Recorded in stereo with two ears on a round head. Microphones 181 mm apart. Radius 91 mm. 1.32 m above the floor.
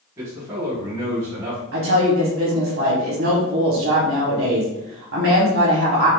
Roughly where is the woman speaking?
Right.